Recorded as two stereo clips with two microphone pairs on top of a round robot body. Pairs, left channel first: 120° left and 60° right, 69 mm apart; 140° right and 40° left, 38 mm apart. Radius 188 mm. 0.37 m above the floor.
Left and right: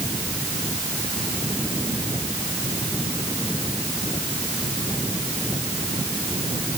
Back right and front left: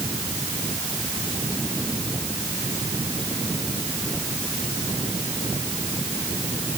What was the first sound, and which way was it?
Only background noise.